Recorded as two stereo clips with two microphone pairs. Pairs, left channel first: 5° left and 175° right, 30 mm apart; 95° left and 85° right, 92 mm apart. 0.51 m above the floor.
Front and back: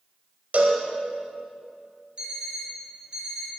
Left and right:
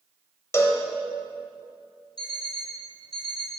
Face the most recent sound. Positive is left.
turn(degrees=130)